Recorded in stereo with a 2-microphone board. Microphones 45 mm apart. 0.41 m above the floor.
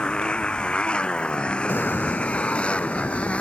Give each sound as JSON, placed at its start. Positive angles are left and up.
{"t": 0.0, "sound": "a motorcycle", "side_deg": 20}
{"t": 1.7, "sound": "an explosion", "side_deg": 50}